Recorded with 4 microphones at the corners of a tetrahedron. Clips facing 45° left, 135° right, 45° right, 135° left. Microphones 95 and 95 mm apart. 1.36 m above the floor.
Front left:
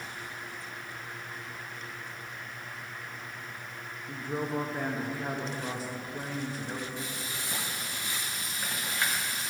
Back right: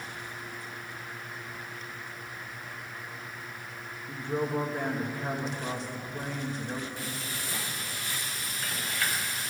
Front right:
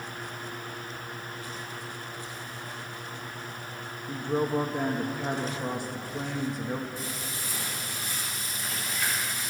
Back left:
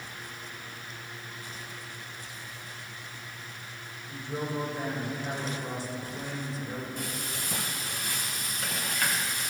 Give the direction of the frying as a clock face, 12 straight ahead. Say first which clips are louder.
Back right 1 dB, even; 8 o'clock.